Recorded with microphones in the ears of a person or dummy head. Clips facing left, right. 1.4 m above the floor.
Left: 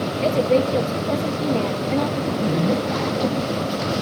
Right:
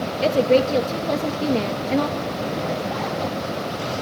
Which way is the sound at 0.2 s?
15° right (ahead or behind).